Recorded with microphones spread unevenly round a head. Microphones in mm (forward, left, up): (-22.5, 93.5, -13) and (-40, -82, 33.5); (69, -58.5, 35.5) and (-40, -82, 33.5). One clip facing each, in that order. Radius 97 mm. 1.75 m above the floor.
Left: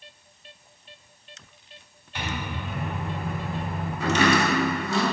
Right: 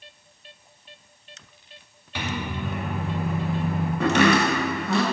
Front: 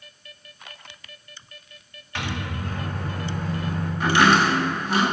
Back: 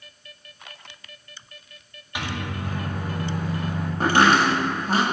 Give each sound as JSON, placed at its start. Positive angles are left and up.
{"t": 2.1, "sound": "a microwave", "azimuth_deg": -95, "distance_m": 2.5}
{"t": 4.0, "sound": "chopping", "azimuth_deg": -120, "distance_m": 2.5}